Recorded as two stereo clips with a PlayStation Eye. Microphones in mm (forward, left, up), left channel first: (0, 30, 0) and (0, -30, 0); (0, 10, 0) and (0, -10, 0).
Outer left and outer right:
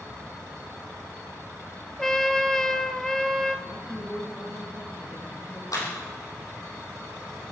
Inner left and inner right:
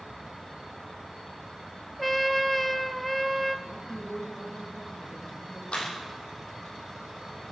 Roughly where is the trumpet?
Centre.